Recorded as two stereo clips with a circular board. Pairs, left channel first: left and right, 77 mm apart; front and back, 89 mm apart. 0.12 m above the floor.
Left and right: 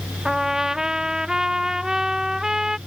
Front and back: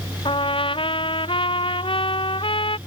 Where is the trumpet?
5° right.